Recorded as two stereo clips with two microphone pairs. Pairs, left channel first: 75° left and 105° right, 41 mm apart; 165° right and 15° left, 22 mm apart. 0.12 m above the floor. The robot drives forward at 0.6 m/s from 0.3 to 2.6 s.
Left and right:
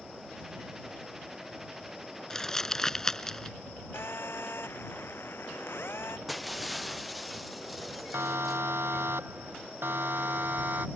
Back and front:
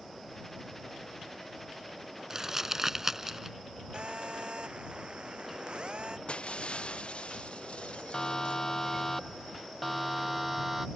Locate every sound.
2.3 s crumpling: 15° left; by 3.6 s 20° left
3.9 s a phone buzzing: 55° left
6.3 s breaking glass: 165° left
8.1 s a siren: 110° right; by 10.9 s 70° right